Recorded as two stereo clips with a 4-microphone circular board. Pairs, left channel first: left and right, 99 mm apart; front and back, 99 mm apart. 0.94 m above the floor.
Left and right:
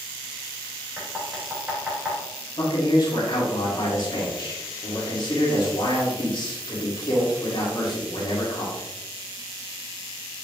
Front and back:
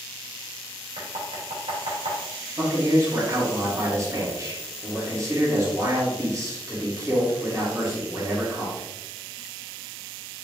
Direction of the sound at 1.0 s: 165° right.